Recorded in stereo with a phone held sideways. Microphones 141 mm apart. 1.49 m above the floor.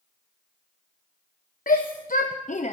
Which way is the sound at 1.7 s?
75° left (ahead or behind).